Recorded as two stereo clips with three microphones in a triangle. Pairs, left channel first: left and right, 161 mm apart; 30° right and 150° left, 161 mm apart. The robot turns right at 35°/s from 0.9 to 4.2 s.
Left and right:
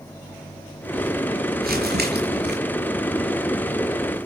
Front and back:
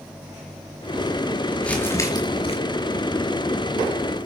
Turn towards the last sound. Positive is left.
turn(degrees=-25)